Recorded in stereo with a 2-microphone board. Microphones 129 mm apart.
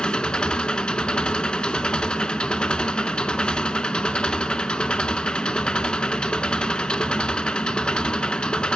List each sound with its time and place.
0.0 s an engine running: 5° left (ahead or behind), 0.8 m